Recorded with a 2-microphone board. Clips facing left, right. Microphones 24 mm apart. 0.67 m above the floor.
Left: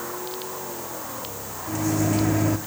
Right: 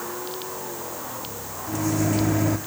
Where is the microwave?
Centre (ahead or behind), 0.9 m.